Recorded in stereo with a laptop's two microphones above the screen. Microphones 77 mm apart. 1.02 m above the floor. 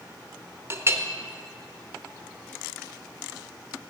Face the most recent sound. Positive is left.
turn(degrees=-35)  # may be behind; listen again after turning